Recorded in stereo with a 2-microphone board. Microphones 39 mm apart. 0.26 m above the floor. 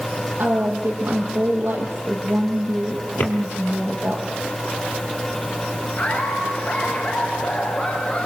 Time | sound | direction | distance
0.4 | a woman speaking | 55° right (ahead or behind) | 8 m
3.2 | a drawer | 50° left (ahead or behind) | 3 m
6.0 | laughter | 35° left (ahead or behind) | 4 m